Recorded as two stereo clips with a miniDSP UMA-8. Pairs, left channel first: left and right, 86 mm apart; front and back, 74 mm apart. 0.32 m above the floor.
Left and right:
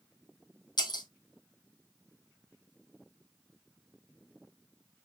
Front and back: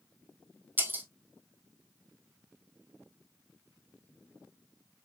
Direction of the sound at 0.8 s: 120° left.